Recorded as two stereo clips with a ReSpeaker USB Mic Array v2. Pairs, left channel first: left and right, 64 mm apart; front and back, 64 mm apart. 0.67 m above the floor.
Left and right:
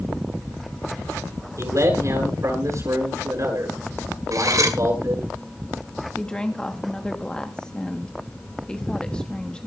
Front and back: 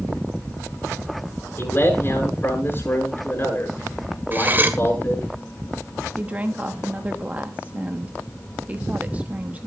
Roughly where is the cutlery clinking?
Behind right.